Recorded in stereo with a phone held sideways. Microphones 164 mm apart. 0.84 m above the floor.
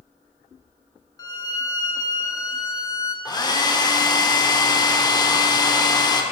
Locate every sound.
1.2 s a violin: 20° left (ahead or behind), 0.6 m
3.2 s a hair dryer: 25° left (ahead or behind), 0.7 m